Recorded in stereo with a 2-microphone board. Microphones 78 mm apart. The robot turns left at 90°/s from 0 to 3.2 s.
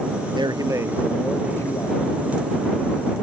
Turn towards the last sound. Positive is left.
turn(degrees=0)